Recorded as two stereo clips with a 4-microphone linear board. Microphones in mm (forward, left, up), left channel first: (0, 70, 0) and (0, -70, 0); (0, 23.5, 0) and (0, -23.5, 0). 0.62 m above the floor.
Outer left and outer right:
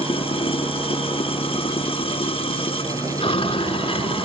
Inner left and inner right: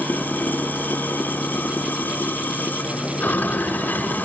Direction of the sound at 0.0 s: 40° left (ahead or behind).